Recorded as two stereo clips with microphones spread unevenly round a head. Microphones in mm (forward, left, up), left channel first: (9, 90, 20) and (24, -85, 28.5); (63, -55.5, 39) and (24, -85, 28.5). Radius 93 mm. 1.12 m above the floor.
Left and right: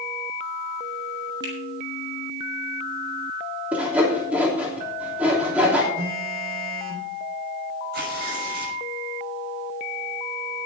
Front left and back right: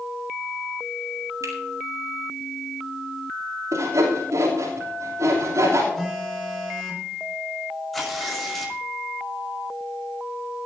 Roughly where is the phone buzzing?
Ahead right.